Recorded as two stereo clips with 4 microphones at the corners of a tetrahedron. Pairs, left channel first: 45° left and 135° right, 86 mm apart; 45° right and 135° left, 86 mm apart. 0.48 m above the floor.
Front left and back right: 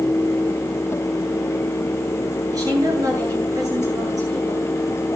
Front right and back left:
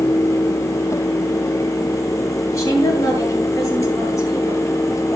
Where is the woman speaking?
95° right, 9.5 m.